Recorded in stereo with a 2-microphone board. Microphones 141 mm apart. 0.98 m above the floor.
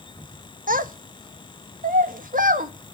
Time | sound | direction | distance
0.7 | a child speaking | 75° right (ahead or behind) | 0.9 m